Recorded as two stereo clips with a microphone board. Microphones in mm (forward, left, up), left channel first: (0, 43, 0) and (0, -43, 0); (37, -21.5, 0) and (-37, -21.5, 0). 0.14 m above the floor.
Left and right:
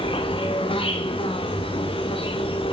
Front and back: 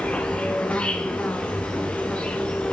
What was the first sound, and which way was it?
An insect, 75° left.